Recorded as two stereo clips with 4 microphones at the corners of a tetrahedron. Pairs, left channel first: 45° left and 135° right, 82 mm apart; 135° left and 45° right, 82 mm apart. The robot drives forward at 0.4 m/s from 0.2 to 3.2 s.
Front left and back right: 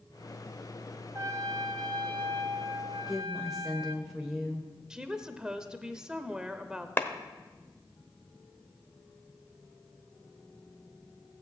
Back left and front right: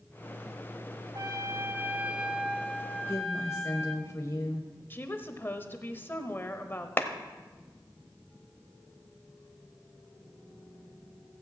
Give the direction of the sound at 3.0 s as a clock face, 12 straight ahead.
7 o'clock.